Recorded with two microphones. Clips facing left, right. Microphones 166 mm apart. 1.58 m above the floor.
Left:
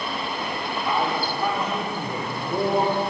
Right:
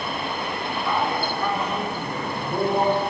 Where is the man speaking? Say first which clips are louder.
Even; 20° left (ahead or behind), 3.5 m; by 3.0 s 10° left (ahead or behind), 5 m.